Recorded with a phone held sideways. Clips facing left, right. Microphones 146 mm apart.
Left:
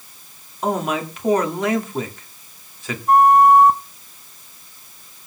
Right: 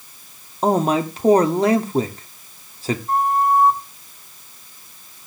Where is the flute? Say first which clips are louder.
Left 8 dB; 80° left, 0.9 m.